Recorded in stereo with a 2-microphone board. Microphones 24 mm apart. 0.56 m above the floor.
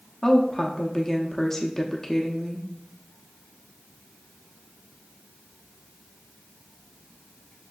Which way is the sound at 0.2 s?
15° left (ahead or behind).